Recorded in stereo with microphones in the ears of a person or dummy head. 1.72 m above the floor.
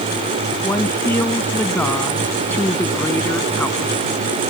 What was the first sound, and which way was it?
A woman speaking, 10° left (ahead or behind).